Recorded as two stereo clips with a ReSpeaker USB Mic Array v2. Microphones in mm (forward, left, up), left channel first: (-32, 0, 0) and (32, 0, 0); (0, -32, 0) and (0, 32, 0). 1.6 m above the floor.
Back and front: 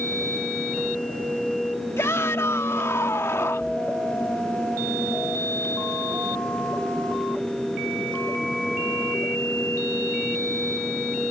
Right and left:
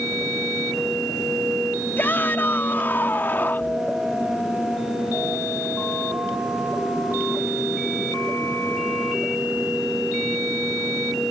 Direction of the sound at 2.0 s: 145° right.